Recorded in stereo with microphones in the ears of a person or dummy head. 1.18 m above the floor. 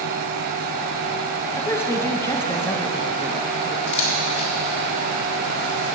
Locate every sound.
1.6 s a woman speaking: 10° left (ahead or behind), 1.3 m
3.9 s a camera shutter: 40° left (ahead or behind), 4 m